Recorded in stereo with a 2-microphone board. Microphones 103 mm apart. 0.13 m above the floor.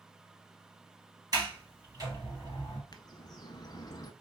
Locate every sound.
1.3 s a sliding door: 35° right (ahead or behind), 3.5 m
2.9 s a bird: 40° left (ahead or behind), 0.5 m